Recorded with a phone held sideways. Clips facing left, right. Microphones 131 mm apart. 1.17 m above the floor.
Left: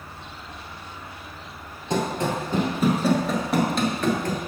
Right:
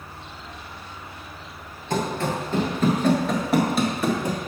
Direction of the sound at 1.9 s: 20° left (ahead or behind).